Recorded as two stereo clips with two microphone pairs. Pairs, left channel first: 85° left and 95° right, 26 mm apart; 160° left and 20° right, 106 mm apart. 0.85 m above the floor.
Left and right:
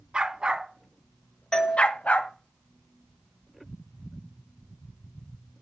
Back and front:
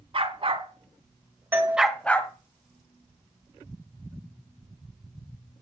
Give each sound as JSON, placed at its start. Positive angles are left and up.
{"t": 0.1, "sound": "a dog barking", "azimuth_deg": -50, "distance_m": 2.0}
{"t": 1.5, "sound": "a doorbell", "azimuth_deg": 40, "distance_m": 1.8}